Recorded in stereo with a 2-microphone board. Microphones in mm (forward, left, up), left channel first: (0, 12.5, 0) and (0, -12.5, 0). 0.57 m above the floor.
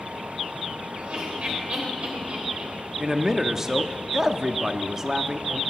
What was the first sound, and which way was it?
Laughter, 55° right (ahead or behind).